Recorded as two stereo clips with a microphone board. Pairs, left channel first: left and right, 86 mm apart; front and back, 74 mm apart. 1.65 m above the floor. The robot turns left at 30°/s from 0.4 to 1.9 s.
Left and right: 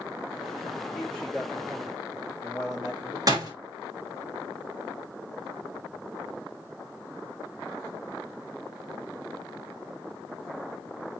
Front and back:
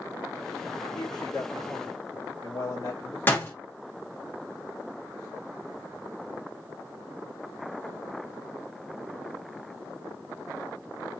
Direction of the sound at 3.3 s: 60° right.